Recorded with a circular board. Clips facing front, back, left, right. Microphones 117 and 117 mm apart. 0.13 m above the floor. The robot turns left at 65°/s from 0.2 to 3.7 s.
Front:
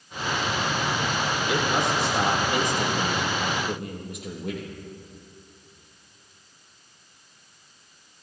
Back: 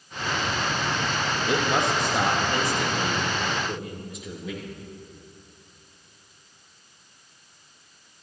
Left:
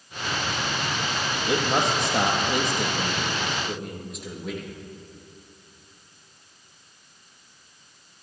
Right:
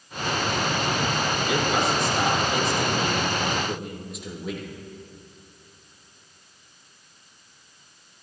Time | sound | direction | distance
1.5 | a man speaking | 145° left | 3 m